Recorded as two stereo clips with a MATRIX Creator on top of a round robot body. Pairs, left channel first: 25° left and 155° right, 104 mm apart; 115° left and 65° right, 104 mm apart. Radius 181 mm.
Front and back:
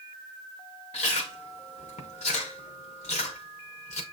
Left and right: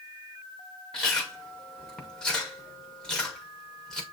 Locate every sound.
0.9 s chewing: 30° left, 0.5 m